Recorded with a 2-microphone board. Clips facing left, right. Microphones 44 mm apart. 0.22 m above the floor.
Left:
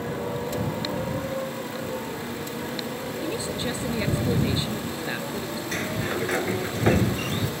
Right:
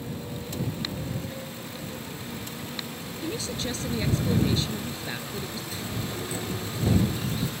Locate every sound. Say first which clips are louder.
0.0 s a motorcycle: left 7 dB; 60° left (ahead or behind); by 7.6 s 75° left (ahead or behind)
3.2 s a woman speaking: left 1 dB; 20° left (ahead or behind)
5.7 s a sliding door: left 9 dB; 65° left (ahead or behind)